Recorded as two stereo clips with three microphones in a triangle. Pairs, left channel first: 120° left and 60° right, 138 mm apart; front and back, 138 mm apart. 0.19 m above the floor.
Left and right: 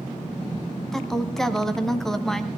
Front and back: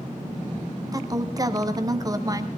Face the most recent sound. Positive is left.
turn(degrees=-155)